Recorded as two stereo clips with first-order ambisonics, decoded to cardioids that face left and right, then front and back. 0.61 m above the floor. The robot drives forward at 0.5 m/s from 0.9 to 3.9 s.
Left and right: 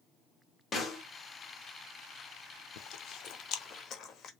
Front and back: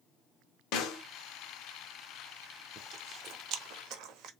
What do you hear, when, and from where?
0.7 s a snare drum: 20° left, 1.0 m; by 1.0 s 25° left, 0.9 m
2.8 s chewing: 110° left, 0.5 m; by 4.3 s 145° left, 0.9 m